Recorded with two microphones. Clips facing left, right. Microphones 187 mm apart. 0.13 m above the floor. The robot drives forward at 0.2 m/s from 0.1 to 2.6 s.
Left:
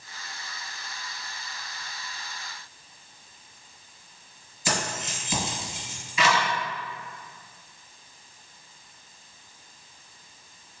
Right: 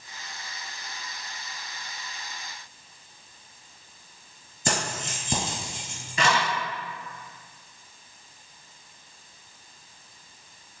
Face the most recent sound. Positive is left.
turn(degrees=-50)  # may be behind; listen again after turning